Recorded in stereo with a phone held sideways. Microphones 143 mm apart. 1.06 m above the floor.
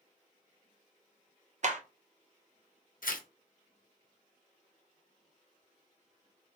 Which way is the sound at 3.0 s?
75° left (ahead or behind).